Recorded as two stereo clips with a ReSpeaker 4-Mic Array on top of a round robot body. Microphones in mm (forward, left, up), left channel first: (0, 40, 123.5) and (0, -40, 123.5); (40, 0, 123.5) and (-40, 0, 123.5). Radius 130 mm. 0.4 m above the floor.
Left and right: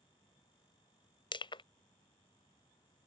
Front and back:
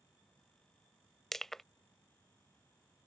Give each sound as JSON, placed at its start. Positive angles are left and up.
{"t": 1.3, "sound": "crushing", "azimuth_deg": 85}